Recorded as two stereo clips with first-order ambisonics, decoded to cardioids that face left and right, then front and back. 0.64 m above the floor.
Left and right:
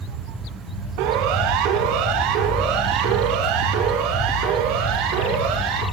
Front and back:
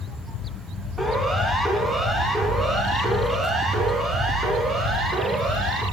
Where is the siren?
95° right, 5.5 m; by 5.8 s 110° right, 8.5 m.